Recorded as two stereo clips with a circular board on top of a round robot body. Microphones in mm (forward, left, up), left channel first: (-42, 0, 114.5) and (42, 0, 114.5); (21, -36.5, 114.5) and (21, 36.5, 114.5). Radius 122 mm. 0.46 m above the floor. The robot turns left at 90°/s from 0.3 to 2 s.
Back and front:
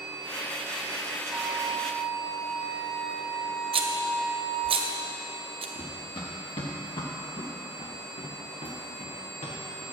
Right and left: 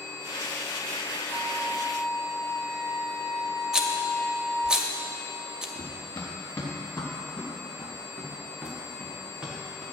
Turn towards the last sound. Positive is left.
turn(degrees=160)